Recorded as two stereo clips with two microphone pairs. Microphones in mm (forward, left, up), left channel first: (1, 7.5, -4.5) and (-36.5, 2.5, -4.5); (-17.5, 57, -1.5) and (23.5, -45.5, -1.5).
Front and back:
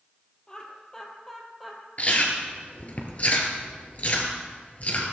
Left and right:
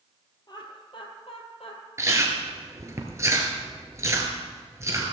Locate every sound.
0.5 s laughter: 70° left, 2.5 m; by 1.8 s 95° left, 3 m
2.0 s chewing: 20° right, 2.0 m